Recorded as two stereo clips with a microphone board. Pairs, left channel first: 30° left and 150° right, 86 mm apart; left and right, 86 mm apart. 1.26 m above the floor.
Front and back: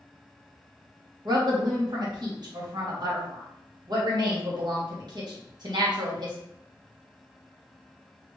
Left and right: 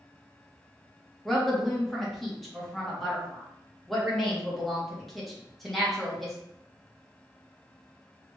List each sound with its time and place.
1.2 s a woman speaking: straight behind, 1.2 m